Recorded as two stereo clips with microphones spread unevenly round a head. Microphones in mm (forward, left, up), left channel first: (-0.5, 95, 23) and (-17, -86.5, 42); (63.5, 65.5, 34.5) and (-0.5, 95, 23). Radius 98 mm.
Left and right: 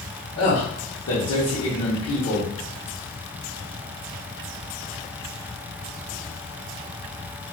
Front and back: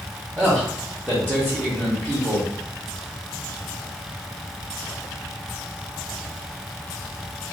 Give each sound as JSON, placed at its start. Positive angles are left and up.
{"t": 0.4, "sound": "a man speaking", "azimuth_deg": 90, "distance_m": 1.2}